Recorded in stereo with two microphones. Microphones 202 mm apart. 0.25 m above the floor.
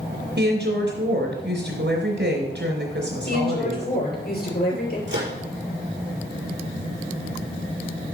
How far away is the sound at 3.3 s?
About 5.5 m.